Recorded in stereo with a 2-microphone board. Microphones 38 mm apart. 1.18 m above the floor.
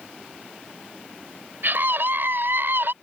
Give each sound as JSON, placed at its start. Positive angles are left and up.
{"t": 1.6, "sound": "a scream", "side_deg": -65}